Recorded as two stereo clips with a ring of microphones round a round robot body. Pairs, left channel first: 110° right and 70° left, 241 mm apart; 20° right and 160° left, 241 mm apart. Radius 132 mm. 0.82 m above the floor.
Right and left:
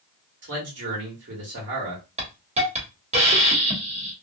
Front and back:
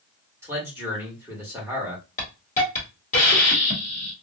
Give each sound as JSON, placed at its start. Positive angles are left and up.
{"t": 0.4, "sound": "a man speaking", "azimuth_deg": 80, "distance_m": 1.4}
{"t": 2.2, "sound": "a hiss", "azimuth_deg": 20, "distance_m": 1.2}